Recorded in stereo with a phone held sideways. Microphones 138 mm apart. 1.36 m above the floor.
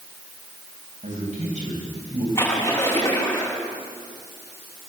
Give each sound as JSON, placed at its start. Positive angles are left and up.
{"t": 1.0, "sound": "a man speaking", "side_deg": -60, "distance_m": 9.5}
{"t": 2.4, "sound": "a splash", "side_deg": 20, "distance_m": 9.0}